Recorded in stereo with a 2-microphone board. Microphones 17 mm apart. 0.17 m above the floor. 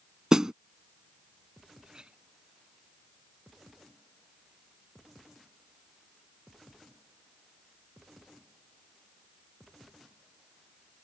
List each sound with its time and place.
0.3 s a snare drum: 40° right (ahead or behind)
1.8 s a clink: 40° right (ahead or behind)